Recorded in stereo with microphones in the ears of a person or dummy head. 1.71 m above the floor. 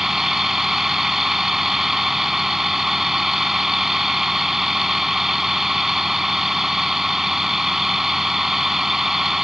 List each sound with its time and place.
0.0 s a vehicle: centre (ahead or behind)